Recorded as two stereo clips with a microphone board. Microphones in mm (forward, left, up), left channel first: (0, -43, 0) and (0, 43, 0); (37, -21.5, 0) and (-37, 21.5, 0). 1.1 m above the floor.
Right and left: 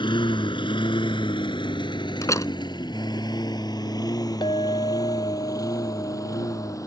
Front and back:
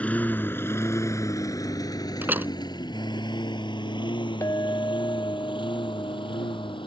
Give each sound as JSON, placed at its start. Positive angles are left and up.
{"t": 0.0, "sound": "a lawn mower", "azimuth_deg": -105}
{"t": 2.2, "sound": "a door slam", "azimuth_deg": -140}
{"t": 4.4, "sound": "a clink", "azimuth_deg": -80}